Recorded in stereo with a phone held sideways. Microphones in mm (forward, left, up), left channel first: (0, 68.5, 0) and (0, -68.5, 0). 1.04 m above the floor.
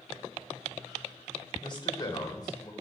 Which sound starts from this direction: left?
A man speaking, at 1.6 s.